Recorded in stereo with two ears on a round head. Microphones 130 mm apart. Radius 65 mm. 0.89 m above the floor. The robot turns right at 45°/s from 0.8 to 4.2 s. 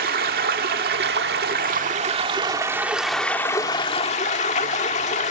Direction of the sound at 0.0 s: 105° right.